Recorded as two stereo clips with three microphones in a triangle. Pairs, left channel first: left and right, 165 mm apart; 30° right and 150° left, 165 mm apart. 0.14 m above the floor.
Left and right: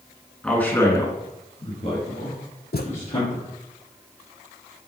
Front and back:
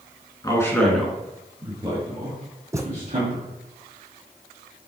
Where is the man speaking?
10° left, 1.8 m; by 3.5 s 125° left, 3.5 m.